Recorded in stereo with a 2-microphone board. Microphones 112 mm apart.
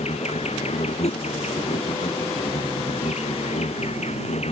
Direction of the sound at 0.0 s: 75° left (ahead or behind).